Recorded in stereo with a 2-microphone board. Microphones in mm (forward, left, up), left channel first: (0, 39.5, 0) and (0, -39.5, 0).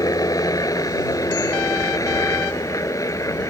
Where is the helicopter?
50° left (ahead or behind); by 3.5 s 45° left (ahead or behind).